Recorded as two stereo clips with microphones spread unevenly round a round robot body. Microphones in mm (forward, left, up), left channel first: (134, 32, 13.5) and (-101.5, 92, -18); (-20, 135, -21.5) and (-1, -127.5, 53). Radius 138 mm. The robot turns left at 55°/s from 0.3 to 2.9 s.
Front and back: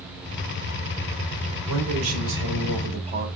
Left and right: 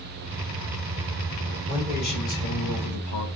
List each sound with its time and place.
1.7 s a man speaking: 170° left, 3 m; by 3.3 s 100° left, 3 m